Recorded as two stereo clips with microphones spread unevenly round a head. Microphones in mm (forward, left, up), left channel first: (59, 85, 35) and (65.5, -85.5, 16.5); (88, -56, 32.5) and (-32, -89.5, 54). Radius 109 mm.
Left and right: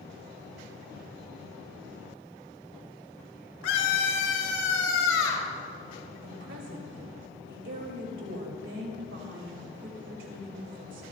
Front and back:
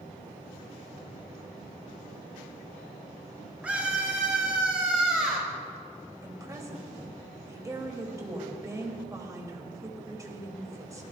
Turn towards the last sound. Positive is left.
turn(degrees=-95)